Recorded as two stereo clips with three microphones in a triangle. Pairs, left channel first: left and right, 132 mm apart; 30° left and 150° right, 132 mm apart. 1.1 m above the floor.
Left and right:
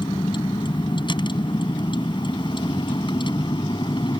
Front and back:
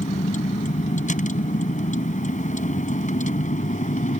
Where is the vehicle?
40° left.